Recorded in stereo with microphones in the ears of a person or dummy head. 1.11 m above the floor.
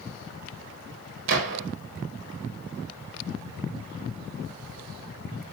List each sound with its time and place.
1.3 s a gunshot: 65° right (ahead or behind), 1.6 m